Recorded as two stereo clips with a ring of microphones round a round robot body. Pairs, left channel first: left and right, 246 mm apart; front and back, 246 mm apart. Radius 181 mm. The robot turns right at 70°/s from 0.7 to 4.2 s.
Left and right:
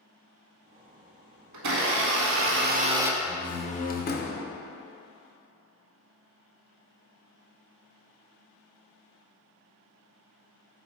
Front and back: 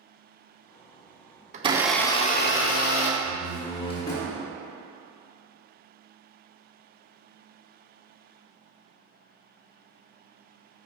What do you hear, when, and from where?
1.5 s a blender: 115° right, 0.5 m; by 3.1 s 5° right, 0.5 m
3.2 s a door slam: 10° left, 0.6 m; by 4.5 s 75° left, 0.6 m